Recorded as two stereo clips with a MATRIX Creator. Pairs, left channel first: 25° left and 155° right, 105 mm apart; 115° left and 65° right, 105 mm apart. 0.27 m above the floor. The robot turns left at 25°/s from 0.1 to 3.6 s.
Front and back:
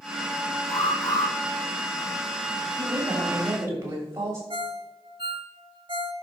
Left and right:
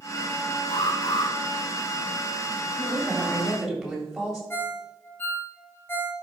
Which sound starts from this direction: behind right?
A woman speaking, at 2.8 s.